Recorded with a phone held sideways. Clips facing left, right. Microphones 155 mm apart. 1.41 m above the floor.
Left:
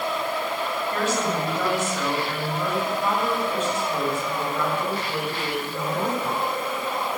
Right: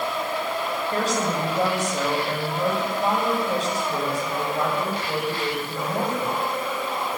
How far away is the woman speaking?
About 8.5 m.